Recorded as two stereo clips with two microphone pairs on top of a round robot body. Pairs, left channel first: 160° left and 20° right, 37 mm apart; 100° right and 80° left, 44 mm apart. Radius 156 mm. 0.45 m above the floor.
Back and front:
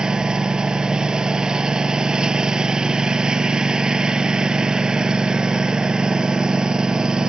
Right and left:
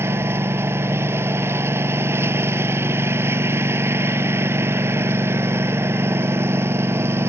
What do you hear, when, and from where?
0.0 s a lawn mower: 55° left